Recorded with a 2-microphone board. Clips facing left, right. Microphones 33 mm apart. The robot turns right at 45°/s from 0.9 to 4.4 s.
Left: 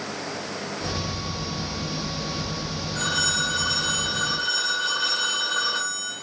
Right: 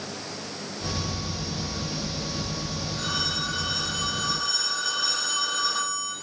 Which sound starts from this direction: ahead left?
A phone ringing, at 3.0 s.